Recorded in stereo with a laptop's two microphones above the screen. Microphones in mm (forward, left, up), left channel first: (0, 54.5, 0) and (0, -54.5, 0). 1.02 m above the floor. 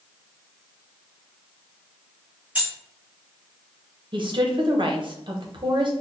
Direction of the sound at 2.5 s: 15° right (ahead or behind).